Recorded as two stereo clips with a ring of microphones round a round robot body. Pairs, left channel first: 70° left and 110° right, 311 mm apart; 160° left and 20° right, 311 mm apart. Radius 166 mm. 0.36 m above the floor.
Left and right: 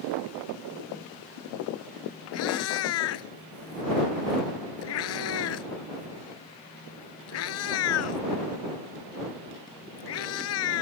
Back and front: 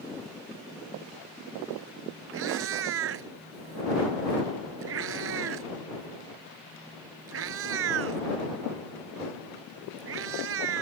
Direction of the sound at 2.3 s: 25° left.